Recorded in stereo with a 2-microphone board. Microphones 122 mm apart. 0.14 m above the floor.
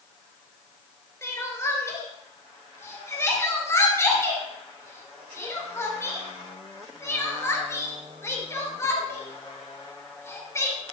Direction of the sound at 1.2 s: 25° left (ahead or behind).